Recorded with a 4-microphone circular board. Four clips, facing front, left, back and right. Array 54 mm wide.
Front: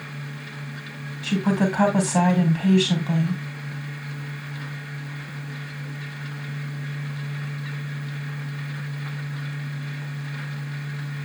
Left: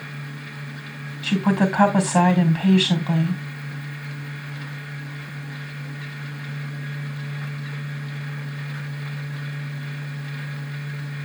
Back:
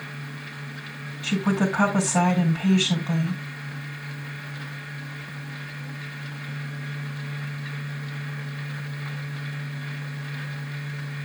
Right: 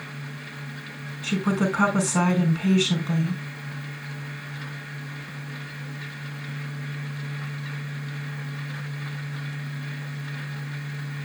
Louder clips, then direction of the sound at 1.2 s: Left 4 dB, front 1 dB; 75° left.